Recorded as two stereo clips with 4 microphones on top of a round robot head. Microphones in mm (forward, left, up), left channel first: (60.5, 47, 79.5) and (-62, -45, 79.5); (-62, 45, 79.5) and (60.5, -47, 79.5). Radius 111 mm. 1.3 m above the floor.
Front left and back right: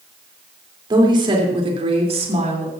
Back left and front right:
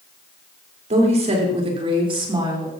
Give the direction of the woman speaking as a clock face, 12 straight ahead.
3 o'clock.